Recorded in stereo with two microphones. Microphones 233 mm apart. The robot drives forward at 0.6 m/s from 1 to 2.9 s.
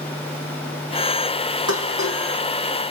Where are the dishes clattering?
75° left (ahead or behind), 3.5 m; by 2.2 s 80° left, 3.5 m.